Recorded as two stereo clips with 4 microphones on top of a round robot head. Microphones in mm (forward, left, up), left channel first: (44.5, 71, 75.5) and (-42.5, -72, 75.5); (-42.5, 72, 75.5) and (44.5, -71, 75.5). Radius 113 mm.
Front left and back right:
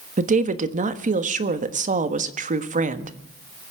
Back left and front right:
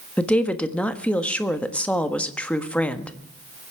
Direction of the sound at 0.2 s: 155° right.